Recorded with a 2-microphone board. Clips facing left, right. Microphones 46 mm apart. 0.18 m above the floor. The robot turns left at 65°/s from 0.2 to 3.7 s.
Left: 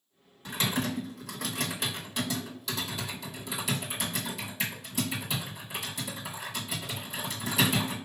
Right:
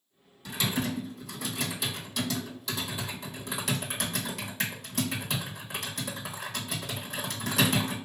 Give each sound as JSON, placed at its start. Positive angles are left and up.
{"t": 0.5, "sound": "typing on a keyboard", "side_deg": 35, "distance_m": 1.5}